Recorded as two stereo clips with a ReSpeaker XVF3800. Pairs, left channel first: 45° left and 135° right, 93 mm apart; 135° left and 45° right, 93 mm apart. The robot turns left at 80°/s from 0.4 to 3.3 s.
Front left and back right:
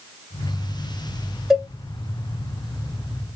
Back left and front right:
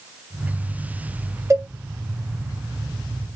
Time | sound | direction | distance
1.5 | a cowbell | 50° right | 1.3 m